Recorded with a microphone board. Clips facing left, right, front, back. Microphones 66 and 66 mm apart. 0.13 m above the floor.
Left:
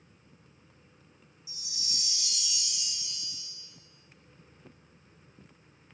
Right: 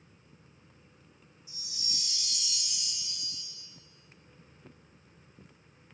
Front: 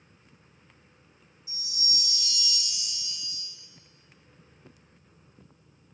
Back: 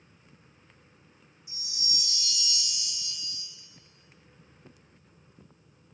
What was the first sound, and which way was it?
A chime, 175° left.